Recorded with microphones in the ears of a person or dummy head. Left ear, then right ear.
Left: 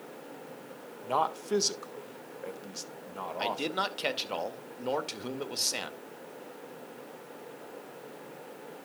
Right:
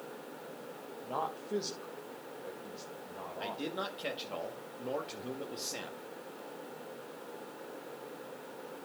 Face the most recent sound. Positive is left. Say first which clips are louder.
# left 7 dB
turn(degrees=50)  # may be behind; listen again after turning